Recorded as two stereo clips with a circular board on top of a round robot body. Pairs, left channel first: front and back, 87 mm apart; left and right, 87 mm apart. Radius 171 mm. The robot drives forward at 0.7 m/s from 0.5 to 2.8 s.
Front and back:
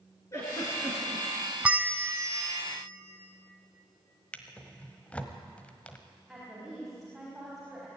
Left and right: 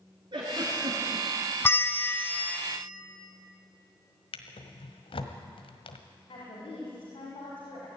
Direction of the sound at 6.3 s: 90° left.